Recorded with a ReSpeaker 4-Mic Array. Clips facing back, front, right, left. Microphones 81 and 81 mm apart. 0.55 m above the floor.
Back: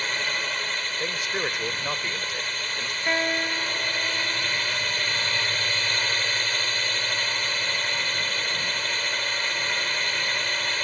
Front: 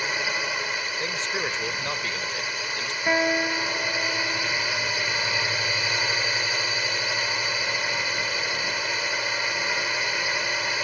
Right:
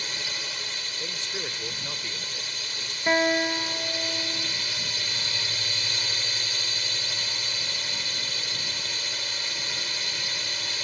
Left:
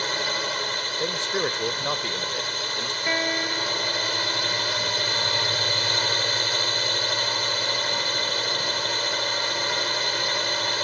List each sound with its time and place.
0.0 s a drone: 80° left
1.0 s a man speaking: 100° left
3.1 s a guitar: 60° right